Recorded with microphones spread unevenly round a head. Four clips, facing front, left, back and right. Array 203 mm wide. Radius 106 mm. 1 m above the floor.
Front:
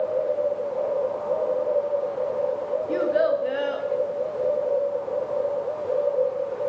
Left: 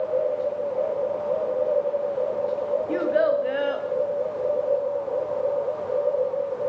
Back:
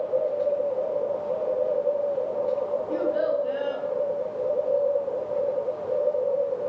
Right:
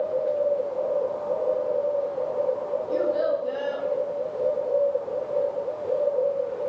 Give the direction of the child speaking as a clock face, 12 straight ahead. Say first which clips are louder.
Left 2 dB, front 5 dB; 10 o'clock.